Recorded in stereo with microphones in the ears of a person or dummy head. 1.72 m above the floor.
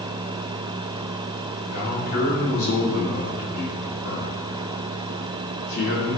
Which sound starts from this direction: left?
A man speaking, at 1.7 s.